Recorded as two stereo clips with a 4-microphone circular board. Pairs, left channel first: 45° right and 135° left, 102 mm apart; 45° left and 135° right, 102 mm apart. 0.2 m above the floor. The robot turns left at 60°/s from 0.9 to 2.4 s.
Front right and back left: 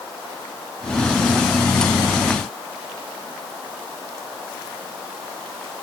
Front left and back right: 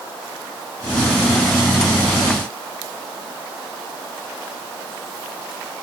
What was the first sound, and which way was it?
Only background noise.